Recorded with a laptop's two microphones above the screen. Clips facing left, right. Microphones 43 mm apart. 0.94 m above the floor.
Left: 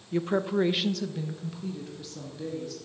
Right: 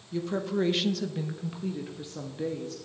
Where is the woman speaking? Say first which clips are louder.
Left 3 dB; 40° left (ahead or behind), 0.8 m; by 2.8 s 35° right (ahead or behind), 2 m.